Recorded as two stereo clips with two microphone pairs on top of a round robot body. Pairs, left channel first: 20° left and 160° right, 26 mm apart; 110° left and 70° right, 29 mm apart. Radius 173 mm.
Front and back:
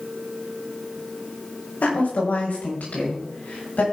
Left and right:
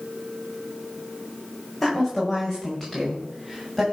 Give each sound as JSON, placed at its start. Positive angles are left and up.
{"t": 1.8, "sound": "a woman speaking", "azimuth_deg": 25, "distance_m": 5.0}